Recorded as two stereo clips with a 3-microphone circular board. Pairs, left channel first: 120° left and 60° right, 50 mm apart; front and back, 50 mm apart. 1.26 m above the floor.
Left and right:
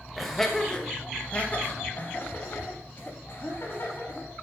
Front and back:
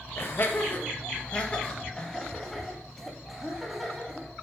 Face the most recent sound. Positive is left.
turn(degrees=100)